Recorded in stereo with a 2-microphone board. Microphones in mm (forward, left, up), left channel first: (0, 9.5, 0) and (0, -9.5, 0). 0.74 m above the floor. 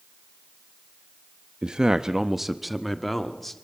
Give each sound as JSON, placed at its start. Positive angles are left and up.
{"t": 1.6, "sound": "a man speaking", "side_deg": -45, "distance_m": 0.7}